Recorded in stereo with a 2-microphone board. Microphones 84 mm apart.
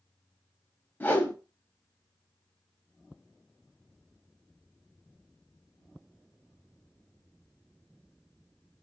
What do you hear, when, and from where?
1.0 s a whoosh: 20° left (ahead or behind), 0.6 m